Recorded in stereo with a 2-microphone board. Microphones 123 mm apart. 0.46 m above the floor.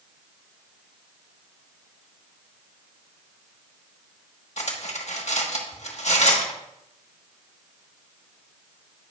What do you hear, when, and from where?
4.6 s cutlery clinking: 65° left (ahead or behind), 1.2 m